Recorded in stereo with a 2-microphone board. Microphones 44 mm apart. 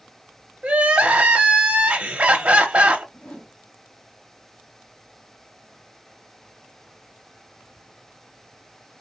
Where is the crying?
35° right (ahead or behind), 0.6 m.